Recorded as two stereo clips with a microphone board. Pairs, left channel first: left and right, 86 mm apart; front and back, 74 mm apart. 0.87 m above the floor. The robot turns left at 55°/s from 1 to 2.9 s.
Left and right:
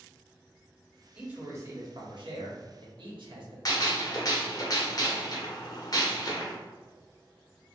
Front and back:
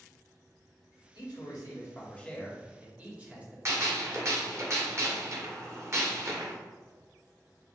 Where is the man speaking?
15° right, 1.5 m; by 3.5 s 110° right, 1.5 m.